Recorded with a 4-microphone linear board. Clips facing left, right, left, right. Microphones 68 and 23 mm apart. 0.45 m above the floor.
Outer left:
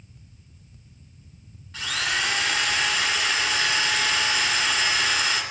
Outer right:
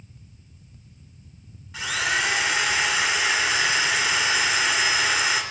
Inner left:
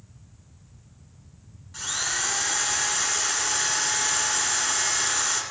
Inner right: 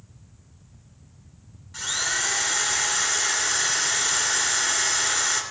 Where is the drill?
10° right (ahead or behind), 3 m.